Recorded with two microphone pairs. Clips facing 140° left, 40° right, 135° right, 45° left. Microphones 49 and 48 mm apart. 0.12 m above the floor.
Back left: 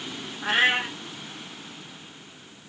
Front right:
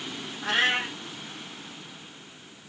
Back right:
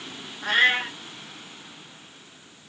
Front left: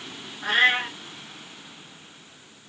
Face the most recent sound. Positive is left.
turn(degrees=115)